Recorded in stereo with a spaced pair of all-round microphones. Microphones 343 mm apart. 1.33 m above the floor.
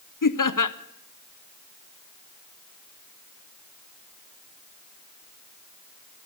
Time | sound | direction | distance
0.2 | laughter | 70° left (ahead or behind) | 0.6 m